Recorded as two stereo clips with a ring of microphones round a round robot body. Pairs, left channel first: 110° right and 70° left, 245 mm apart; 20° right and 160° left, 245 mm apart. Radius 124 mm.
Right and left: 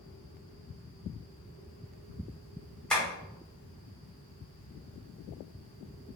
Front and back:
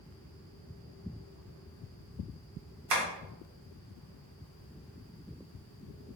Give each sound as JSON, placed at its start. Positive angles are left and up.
{"t": 2.9, "sound": "tapping", "azimuth_deg": 160, "distance_m": 1.0}